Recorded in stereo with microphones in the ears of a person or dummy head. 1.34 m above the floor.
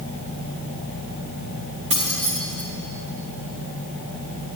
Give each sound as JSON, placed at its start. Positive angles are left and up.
{"t": 1.9, "sound": "keys jangling", "side_deg": -35, "distance_m": 1.2}